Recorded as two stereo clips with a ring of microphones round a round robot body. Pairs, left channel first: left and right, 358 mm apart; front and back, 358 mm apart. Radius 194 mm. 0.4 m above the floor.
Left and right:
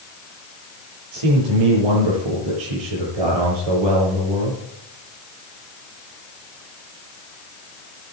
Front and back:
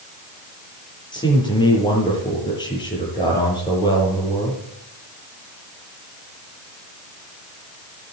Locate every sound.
1.1 s a man speaking: 80° right, 8 m